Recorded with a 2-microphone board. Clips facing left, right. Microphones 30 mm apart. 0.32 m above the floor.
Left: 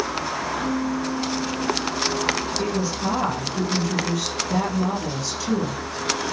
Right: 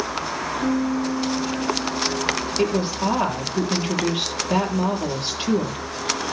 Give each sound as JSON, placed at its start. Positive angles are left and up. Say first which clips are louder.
{"t": 0.6, "sound": "a piano", "louder": "right 5 dB", "side_deg": -85, "distance_m": 6.5}
{"t": 2.6, "sound": "a woman speaking", "louder": "right 3 dB", "side_deg": -65, "distance_m": 8.0}